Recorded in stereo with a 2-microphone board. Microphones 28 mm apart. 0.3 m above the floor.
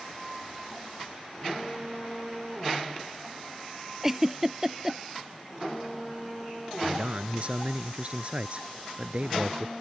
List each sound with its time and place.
4.0 s a giggle: 10° right (ahead or behind)
6.8 s a man speaking: 45° right (ahead or behind)